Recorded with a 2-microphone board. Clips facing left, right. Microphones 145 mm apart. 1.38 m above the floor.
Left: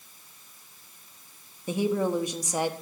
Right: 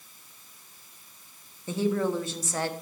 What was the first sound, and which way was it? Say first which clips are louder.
A woman speaking: left 1 dB; 15° left (ahead or behind).